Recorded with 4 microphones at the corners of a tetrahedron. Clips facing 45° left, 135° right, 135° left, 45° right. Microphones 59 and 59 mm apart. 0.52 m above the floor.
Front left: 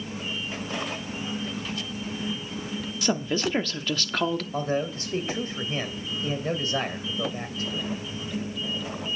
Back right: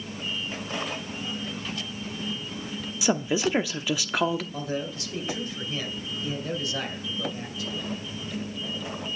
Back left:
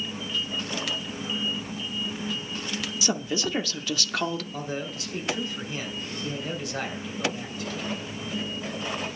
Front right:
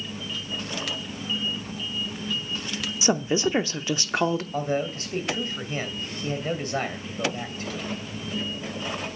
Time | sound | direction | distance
3.0 | a woman speaking | 70° right | 0.7 m
4.5 | a man speaking | straight ahead | 2.5 m